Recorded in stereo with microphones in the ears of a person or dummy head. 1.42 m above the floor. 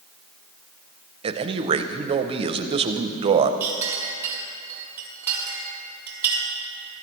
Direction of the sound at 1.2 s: 30° right (ahead or behind).